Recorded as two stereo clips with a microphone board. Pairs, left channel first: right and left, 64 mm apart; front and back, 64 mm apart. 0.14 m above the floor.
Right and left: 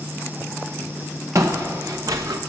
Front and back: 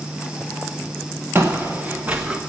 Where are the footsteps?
125° left, 1.4 m; by 2.4 s 105° left, 0.9 m.